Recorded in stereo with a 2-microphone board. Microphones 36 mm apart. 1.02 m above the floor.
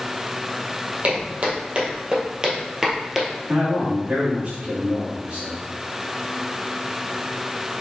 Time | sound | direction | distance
1.0 | footsteps | 50° right (ahead or behind) | 1.8 m
3.5 | a man speaking | 60° right (ahead or behind) | 2 m